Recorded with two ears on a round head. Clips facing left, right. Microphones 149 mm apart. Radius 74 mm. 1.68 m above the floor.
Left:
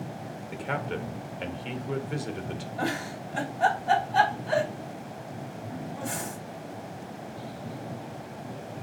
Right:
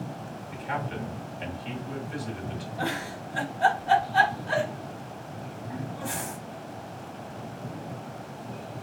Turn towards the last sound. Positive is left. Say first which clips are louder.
# left 1 dB
turn(degrees=25)  # may be behind; listen again after turning